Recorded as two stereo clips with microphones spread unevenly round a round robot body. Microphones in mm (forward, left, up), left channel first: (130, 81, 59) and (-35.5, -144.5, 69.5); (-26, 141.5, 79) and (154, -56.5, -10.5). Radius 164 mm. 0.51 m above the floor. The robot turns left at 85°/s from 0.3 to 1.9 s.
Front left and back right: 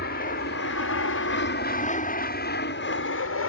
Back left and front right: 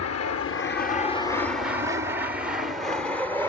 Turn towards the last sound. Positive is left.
turn(degrees=40)